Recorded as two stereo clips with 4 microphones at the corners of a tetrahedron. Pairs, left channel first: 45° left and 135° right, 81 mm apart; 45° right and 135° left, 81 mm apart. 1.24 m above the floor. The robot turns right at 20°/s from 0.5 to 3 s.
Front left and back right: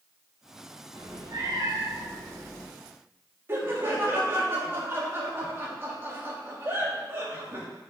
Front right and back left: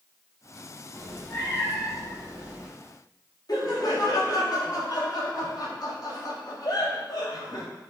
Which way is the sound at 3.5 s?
75° right.